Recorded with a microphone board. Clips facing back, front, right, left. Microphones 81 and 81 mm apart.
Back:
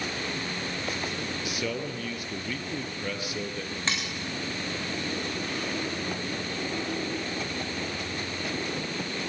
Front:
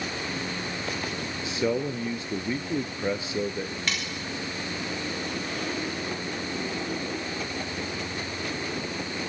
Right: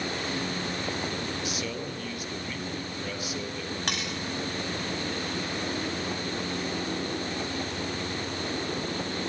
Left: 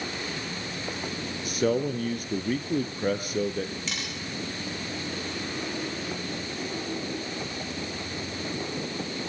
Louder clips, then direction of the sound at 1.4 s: Front 8 dB, left 8 dB; 55° left.